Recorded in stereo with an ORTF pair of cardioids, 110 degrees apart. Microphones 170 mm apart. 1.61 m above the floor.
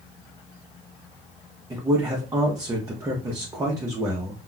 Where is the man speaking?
20° right, 0.7 m.